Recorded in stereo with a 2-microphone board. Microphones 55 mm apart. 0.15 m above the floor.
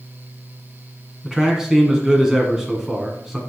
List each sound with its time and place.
1.2 s a man speaking: 10° right (ahead or behind), 1.4 m